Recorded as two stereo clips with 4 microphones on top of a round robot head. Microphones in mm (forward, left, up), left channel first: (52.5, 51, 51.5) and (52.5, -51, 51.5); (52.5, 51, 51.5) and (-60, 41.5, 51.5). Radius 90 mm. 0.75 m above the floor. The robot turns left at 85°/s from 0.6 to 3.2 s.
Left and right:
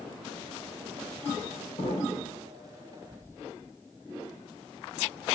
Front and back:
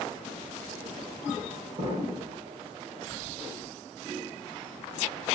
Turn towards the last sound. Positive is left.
turn(degrees=20)